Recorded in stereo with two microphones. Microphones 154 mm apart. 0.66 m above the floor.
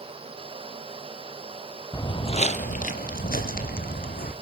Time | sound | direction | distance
1.9 | footsteps | 20° left (ahead or behind) | 1.1 m